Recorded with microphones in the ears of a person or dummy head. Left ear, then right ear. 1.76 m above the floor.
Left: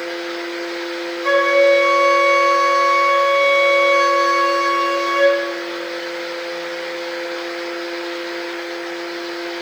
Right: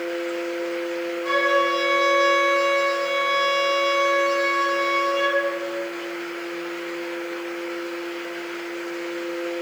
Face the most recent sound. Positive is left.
turn(degrees=50)  # may be behind; listen again after turning